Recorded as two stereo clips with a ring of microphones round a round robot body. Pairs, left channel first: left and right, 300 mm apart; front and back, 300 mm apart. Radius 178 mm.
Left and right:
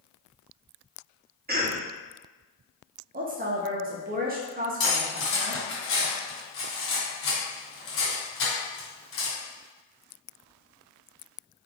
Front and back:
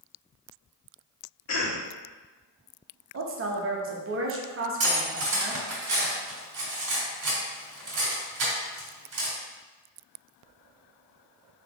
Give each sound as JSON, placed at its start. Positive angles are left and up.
{"t": 1.5, "sound": "a cough", "azimuth_deg": -35, "distance_m": 1.5}
{"t": 3.1, "sound": "a woman speaking", "azimuth_deg": -145, "distance_m": 0.8}
{"t": 4.8, "sound": "cutlery clinking", "azimuth_deg": 140, "distance_m": 1.9}